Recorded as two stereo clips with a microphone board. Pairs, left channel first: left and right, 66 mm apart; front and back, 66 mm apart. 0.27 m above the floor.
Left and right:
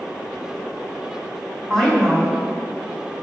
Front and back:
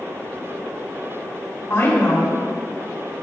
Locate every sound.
1.7 s a woman speaking: 15° left, 2.5 m; by 3.2 s 5° left, 3 m